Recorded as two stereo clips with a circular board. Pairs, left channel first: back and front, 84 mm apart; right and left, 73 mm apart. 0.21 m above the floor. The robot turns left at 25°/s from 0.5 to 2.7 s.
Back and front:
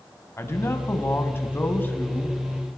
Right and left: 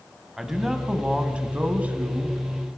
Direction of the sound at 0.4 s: 170° left.